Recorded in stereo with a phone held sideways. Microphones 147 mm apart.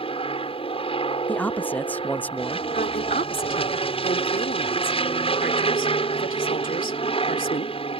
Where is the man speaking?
10° left (ahead or behind).